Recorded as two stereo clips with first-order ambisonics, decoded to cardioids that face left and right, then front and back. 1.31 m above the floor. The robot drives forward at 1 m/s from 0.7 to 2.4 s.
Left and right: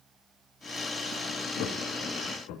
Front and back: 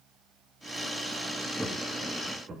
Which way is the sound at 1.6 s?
95° left.